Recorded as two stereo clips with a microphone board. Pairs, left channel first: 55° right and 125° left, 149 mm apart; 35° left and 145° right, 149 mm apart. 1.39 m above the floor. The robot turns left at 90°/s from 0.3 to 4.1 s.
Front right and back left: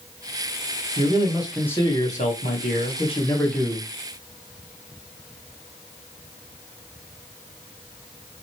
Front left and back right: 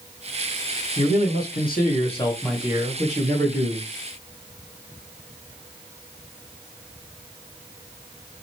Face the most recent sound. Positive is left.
turn(degrees=165)